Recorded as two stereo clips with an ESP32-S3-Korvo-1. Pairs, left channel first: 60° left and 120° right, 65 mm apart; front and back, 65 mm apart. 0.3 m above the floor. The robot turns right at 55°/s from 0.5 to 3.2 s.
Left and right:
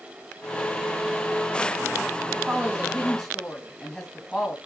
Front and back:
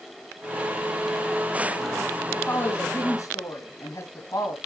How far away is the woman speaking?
About 2.0 m.